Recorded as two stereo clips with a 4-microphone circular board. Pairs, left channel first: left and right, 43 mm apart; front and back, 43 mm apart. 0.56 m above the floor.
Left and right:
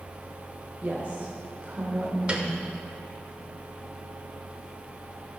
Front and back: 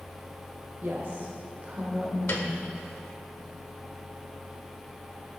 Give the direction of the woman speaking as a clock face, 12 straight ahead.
5 o'clock.